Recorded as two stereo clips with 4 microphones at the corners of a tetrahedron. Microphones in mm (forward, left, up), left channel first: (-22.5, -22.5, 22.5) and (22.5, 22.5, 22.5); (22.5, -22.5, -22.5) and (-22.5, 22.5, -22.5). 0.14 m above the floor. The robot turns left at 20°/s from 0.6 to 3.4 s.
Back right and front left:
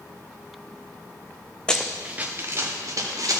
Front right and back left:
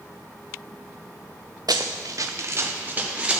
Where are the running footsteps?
150° left, 0.6 m; by 3.4 s 60° left, 2 m.